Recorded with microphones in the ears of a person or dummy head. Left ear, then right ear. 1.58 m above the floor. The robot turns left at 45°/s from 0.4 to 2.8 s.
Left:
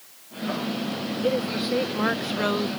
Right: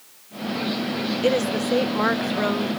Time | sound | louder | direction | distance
1.2 | a woman speaking | right 4 dB | 125° right | ?